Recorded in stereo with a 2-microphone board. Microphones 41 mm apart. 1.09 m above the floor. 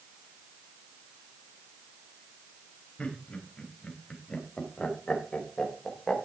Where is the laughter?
25° left (ahead or behind), 5 m; by 6.2 s 10° left (ahead or behind), 3.5 m.